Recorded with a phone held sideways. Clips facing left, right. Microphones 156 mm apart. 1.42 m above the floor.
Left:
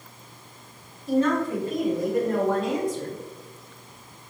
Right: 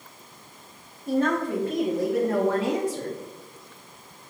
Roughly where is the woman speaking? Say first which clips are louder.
Left 1 dB; right.